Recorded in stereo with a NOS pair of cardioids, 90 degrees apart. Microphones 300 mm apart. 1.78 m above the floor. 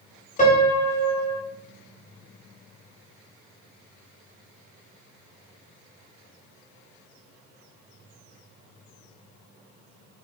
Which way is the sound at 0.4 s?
25° left.